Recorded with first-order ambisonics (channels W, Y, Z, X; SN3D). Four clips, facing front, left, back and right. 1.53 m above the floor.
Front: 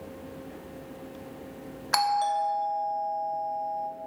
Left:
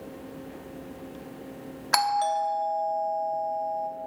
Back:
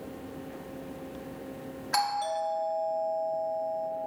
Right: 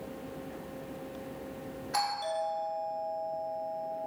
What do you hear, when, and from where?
1.9 s a doorbell: 65° left, 1.2 m